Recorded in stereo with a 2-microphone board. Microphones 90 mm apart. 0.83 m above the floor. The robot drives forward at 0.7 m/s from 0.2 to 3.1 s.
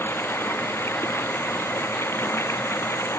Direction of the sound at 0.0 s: 30° left (ahead or behind).